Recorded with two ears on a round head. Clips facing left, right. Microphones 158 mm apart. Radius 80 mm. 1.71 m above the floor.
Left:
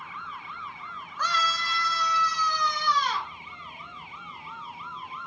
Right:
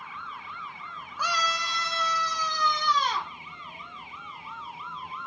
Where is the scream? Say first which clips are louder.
Even; 10° right (ahead or behind), 0.6 m; by 3.3 s 20° right (ahead or behind), 1.0 m.